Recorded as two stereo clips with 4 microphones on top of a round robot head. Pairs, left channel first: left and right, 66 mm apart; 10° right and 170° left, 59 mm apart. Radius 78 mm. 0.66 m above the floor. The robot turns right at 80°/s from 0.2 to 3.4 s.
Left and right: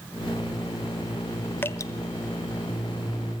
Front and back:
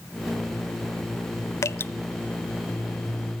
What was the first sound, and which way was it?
Dripping, 25° left.